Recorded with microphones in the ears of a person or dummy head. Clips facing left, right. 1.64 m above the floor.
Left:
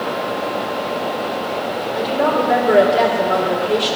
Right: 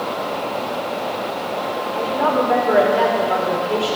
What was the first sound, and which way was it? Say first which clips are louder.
A woman speaking: left 1 dB; 25° left (ahead or behind).